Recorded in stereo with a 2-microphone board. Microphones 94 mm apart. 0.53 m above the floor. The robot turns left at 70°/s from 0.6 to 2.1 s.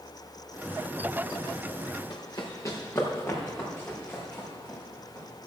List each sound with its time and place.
2.1 s running footsteps: 40° left (ahead or behind), 2.5 m; by 5.2 s 15° left (ahead or behind), 6.5 m